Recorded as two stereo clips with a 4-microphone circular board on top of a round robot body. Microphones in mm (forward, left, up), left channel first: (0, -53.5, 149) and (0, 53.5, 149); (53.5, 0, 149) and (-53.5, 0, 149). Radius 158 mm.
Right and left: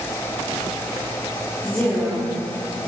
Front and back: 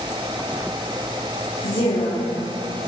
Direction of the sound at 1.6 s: 10° right.